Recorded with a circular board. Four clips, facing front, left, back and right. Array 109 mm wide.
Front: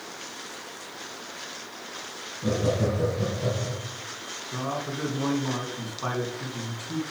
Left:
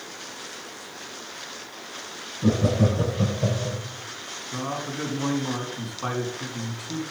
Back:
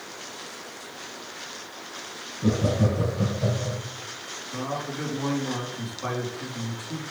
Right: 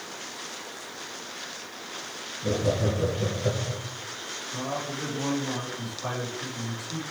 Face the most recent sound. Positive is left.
turn(degrees=55)